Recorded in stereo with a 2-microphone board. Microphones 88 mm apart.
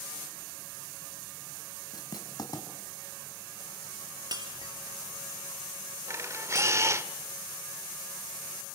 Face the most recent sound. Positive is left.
turn(degrees=-35)  # may be behind; listen again after turning